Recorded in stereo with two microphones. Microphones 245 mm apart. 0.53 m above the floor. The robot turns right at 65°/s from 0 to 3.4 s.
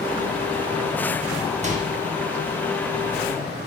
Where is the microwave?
30° right (ahead or behind), 0.8 m; by 1.9 s 35° right (ahead or behind), 0.8 m.